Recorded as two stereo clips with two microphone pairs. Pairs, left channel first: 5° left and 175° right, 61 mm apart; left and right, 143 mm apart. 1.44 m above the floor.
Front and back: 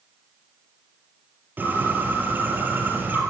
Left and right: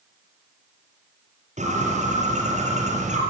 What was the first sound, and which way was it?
A bird, 120° right.